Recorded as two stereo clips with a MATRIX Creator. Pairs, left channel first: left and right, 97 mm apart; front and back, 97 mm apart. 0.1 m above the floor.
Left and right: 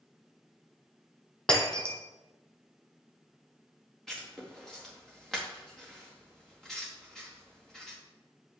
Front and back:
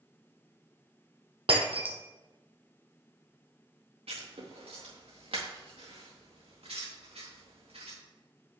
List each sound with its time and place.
1.5 s breaking glass: 170° left, 2.0 m
4.1 s writing: 175° left, 4 m